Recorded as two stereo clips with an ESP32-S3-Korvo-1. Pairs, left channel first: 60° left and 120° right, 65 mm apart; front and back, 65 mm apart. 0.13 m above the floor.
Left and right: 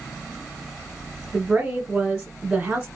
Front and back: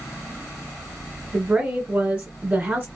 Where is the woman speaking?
170° right, 1.4 m.